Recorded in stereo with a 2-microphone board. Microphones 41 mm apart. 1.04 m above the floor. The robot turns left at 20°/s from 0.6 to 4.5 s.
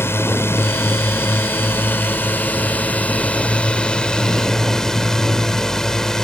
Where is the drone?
90° left; by 6.3 s 10° left.